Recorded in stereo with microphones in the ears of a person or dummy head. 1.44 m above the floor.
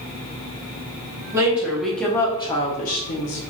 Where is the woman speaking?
10° right (ahead or behind), 1.1 m; by 3.4 s 70° left (ahead or behind), 0.9 m.